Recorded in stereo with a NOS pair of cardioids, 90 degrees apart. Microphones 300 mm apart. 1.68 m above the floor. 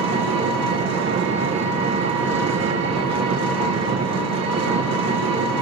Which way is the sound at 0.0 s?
60° right.